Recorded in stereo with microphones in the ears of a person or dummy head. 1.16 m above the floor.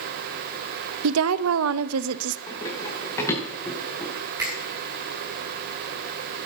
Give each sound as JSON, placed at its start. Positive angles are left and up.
{"t": 1.0, "sound": "a woman speaking", "side_deg": -80, "distance_m": 0.9}
{"t": 2.5, "sound": "running footsteps", "side_deg": 25, "distance_m": 9.0}
{"t": 4.4, "sound": "a finger snap", "side_deg": -20, "distance_m": 9.0}